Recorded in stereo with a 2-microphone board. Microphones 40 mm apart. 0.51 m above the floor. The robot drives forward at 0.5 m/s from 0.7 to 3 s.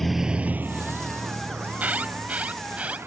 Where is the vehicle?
5° left (ahead or behind); by 3.1 s 90° right.